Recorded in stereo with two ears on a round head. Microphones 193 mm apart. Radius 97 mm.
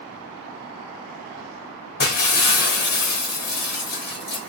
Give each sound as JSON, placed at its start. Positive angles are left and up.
{"t": 2.0, "sound": "breaking glass", "side_deg": 50, "distance_m": 1.4}